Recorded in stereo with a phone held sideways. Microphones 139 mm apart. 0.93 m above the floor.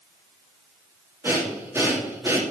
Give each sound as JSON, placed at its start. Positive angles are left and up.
{"t": 1.2, "sound": "breathing", "side_deg": -20, "distance_m": 2.5}